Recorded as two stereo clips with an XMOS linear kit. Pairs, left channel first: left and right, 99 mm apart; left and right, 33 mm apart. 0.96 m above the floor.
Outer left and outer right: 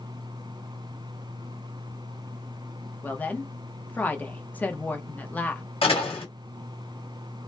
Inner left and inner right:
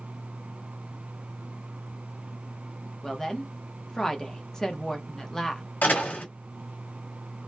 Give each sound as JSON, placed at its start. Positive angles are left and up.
{"t": 3.0, "sound": "a woman speaking", "side_deg": 15, "distance_m": 0.6}
{"t": 5.8, "sound": "a door slam", "side_deg": 70, "distance_m": 1.2}